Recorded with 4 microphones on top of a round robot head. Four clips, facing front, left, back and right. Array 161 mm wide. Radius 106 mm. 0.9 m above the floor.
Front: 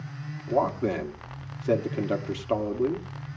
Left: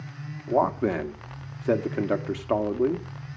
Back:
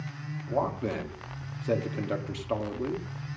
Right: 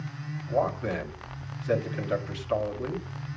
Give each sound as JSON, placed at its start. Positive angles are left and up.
{"t": 0.5, "sound": "a man speaking", "azimuth_deg": 75, "distance_m": 1.9}